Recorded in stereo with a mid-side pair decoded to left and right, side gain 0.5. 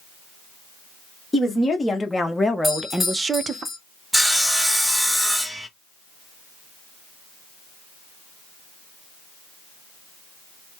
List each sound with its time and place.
1.3 s a woman speaking: 25° left, 1.2 m; by 3.6 s 45° right, 0.6 m
2.6 s a doorbell: 15° left, 1.5 m
4.1 s sawing: straight ahead, 0.8 m